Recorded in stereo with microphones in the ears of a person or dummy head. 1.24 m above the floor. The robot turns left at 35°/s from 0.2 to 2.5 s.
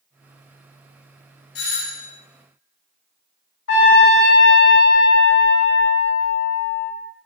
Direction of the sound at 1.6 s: 50° left (ahead or behind).